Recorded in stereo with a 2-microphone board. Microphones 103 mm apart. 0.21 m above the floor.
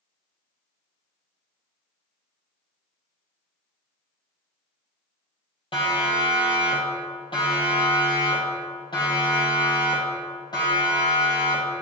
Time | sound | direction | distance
5.7 | a siren | 60° left (ahead or behind) | 7 m